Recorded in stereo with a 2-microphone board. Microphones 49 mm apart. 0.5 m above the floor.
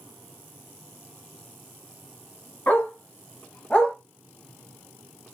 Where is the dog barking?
40° left (ahead or behind), 1.6 m; by 4.0 s 20° left (ahead or behind), 0.9 m.